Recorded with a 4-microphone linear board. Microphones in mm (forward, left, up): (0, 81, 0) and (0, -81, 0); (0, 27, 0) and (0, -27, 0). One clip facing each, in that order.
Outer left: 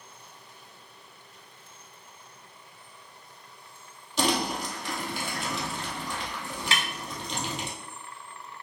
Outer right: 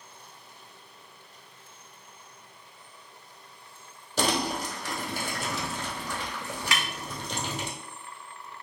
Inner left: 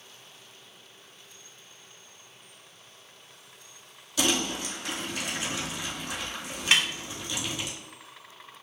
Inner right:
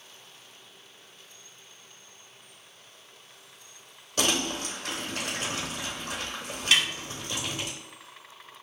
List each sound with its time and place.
4.2 s crumpling: 45° right (ahead or behind), 1.8 m
6.7 s a snare drum: 30° left (ahead or behind), 1.2 m